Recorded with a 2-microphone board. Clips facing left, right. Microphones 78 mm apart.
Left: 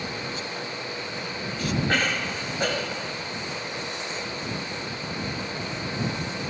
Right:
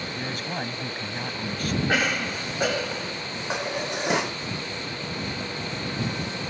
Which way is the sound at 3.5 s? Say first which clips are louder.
Right 5 dB; 70° right (ahead or behind).